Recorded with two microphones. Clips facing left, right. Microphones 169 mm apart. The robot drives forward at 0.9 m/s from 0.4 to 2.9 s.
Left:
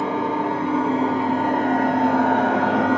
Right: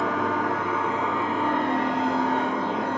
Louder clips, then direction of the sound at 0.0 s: Left 3 dB; 25° left (ahead or behind).